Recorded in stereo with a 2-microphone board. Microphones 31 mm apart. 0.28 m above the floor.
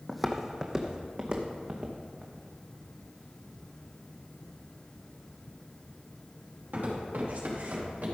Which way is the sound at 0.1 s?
Centre (ahead or behind).